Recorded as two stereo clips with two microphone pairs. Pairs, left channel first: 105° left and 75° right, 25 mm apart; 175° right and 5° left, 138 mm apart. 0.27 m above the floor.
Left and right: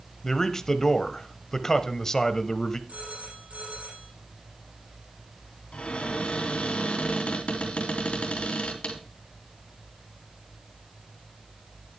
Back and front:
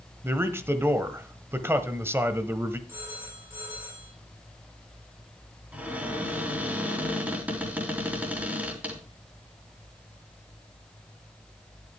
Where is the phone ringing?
70° right, 5.5 m.